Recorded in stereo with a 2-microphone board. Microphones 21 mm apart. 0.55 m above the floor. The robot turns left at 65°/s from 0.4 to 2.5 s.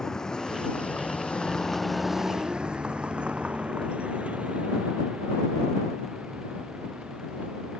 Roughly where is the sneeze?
I don't hear a sneeze.